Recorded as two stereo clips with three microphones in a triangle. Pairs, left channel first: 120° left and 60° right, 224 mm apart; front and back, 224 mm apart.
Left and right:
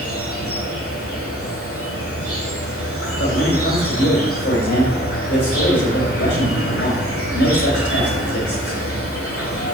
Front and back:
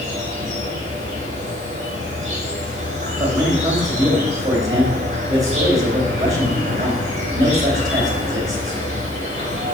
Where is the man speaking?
105° left, 3 m.